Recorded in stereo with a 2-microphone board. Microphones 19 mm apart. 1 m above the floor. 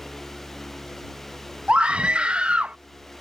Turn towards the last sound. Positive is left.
turn(degrees=-70)  # may be behind; listen again after turning